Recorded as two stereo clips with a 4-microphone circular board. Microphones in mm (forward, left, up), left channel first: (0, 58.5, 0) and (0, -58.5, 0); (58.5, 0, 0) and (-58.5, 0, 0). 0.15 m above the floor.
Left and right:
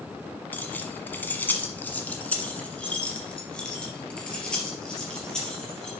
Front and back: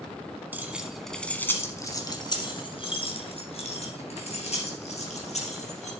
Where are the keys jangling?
135° left, 1.1 m; by 5.9 s 5° left, 3.5 m.